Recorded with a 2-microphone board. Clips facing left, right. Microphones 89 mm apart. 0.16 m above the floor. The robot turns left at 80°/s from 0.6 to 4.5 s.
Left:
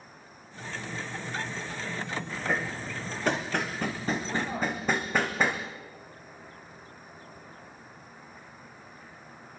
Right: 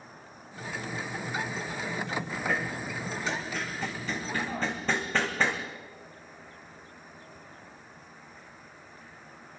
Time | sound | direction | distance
0.0 | an insect | 35° right | 5.5 m
2.5 | hammering | 10° left (ahead or behind) | 3 m